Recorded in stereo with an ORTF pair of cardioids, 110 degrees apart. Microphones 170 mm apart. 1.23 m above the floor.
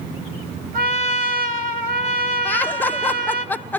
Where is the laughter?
10° left, 1.0 m.